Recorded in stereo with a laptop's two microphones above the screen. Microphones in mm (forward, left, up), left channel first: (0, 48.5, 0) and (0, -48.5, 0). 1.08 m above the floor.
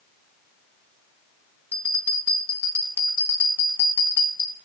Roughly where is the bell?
Right.